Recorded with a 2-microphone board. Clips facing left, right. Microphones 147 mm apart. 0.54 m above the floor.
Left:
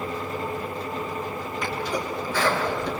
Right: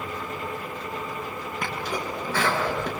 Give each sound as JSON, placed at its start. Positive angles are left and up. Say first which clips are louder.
{"t": 1.6, "sound": "a sneeze", "louder": "left 2 dB", "side_deg": -65, "distance_m": 7.5}